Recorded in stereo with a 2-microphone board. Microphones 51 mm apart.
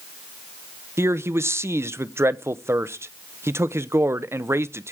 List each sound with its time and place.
1.0 s a man speaking: 55° right (ahead or behind), 0.7 m